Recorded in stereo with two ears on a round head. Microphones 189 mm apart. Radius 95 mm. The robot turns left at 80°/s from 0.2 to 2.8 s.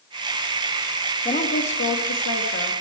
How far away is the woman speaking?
About 2.5 m.